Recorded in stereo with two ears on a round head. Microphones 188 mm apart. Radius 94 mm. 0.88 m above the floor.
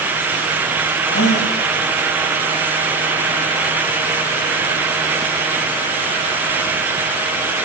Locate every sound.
1.1 s a gasp: 55° left (ahead or behind), 6.5 m